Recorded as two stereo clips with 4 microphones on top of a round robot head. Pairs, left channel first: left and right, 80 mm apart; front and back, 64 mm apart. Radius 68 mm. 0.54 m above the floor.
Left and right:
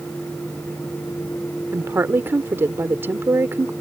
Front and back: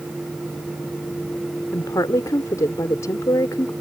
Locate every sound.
1.7 s a woman speaking: 35° right